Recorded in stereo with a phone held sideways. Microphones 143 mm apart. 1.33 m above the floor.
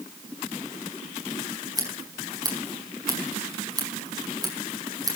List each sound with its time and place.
1.8 s scissors: 25° right (ahead or behind), 5 m